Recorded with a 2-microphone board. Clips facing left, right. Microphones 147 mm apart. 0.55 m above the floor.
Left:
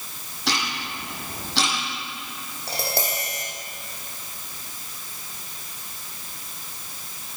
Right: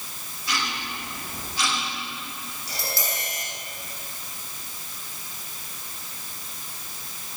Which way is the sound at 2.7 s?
60° left (ahead or behind).